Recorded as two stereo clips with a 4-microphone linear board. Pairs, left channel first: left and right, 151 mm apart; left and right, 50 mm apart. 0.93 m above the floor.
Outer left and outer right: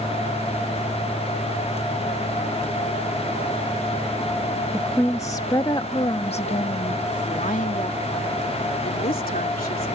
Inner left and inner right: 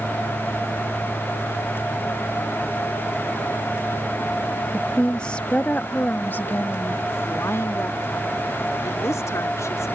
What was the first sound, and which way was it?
A woman speaking, 10° left (ahead or behind).